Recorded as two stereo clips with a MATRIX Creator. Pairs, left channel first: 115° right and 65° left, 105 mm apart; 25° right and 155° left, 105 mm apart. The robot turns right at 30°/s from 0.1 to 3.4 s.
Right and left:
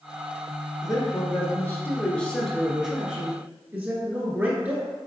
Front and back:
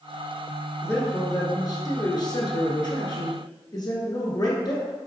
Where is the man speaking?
80° right, 1.4 m; by 4.9 s straight ahead, 1.4 m.